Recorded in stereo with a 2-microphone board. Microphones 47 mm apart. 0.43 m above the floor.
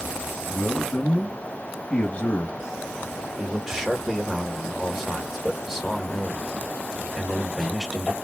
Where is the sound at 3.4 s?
10° right (ahead or behind), 1.7 m.